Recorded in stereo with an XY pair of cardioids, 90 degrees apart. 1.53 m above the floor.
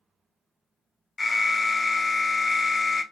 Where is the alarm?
25° left, 0.5 m.